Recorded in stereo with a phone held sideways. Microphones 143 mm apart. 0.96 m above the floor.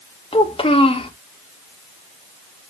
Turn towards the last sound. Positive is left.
turn(degrees=40)  # may be behind; listen again after turning